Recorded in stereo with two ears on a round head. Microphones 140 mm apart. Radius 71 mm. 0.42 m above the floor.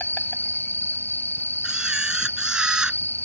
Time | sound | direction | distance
0.0 | an insect | 15° left (ahead or behind) | ?
1.6 | a camera shutter | 5° right (ahead or behind) | ?